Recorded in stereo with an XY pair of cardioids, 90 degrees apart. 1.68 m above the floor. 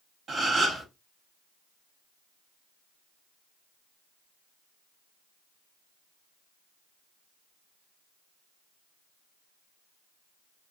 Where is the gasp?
50° right, 1.9 m.